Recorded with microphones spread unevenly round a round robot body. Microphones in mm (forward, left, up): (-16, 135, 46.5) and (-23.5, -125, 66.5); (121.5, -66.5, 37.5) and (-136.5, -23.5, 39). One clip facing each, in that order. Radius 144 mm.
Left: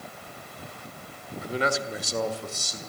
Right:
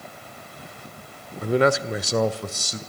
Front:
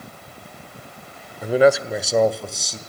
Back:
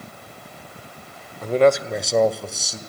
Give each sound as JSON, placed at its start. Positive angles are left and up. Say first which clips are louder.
{"t": 1.4, "sound": "a man speaking", "louder": "right 9 dB, front 1 dB", "azimuth_deg": -90, "distance_m": 1.4}